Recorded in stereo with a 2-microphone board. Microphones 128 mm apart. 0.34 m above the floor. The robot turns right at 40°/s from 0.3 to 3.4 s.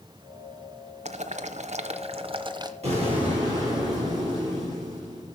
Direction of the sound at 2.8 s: 55° right (ahead or behind).